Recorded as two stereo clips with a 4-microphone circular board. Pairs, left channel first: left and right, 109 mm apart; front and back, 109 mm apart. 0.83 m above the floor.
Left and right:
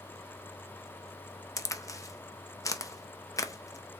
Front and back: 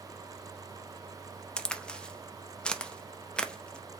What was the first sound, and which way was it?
A crack, 75° left.